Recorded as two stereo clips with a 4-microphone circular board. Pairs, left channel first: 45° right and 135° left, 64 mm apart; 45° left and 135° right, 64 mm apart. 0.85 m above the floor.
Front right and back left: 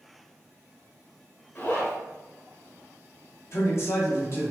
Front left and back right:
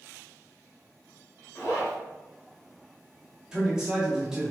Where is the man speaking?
60° right, 1.3 m.